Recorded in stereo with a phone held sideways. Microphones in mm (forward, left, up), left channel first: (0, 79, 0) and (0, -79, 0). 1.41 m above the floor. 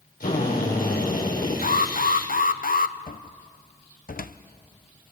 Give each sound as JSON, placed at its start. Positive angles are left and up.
{"t": 0.2, "sound": "a drill", "side_deg": 80, "distance_m": 5.5}
{"t": 1.6, "sound": "an alarm", "side_deg": 70, "distance_m": 0.8}
{"t": 3.1, "sound": "a cupboard door", "side_deg": 70, "distance_m": 0.8}